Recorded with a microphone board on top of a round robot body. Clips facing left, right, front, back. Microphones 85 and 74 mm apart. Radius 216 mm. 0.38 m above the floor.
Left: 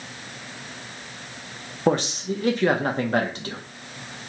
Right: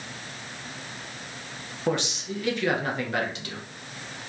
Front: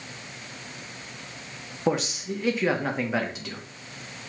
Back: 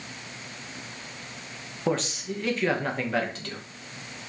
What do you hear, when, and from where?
1.9 s a man speaking: 75° left, 0.9 m